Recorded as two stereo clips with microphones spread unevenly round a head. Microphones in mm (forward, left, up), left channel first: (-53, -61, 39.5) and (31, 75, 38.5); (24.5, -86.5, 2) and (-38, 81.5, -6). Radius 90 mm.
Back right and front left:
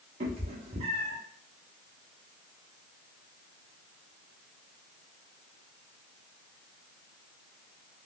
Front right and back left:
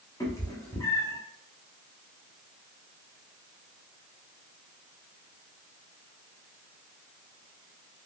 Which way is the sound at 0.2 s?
Straight ahead.